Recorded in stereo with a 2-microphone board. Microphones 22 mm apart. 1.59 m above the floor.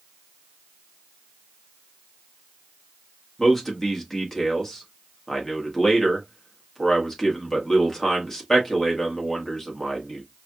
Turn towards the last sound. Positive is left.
turn(degrees=15)  # may be behind; listen again after turning